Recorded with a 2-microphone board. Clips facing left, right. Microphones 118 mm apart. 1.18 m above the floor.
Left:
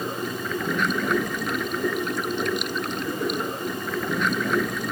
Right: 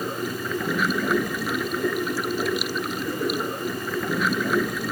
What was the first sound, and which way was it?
Running water, 5° right (ahead or behind).